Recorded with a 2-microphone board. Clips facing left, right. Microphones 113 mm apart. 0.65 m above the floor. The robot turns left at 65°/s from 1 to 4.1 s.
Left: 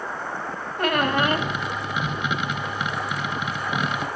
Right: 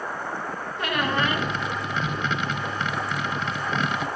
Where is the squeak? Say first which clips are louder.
Left 4 dB; 95° left, 0.6 m; by 1.5 s 65° left, 0.6 m.